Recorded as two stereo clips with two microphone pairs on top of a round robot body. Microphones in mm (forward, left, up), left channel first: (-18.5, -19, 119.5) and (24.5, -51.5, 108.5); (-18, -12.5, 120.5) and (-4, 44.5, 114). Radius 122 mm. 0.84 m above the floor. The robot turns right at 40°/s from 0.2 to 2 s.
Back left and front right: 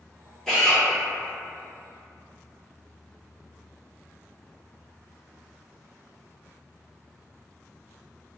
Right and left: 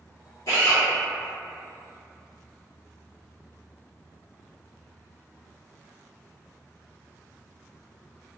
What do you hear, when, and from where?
0.5 s a drill: 135° right, 0.9 m; by 0.8 s 120° right, 0.9 m